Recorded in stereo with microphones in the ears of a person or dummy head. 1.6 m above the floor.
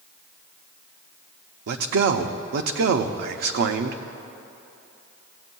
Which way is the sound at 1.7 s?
55° right (ahead or behind).